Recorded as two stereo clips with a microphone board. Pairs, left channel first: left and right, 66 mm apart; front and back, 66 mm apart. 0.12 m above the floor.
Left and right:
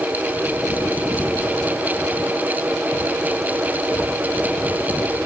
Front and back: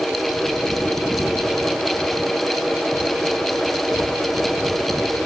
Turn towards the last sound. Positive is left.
No sound to turn to.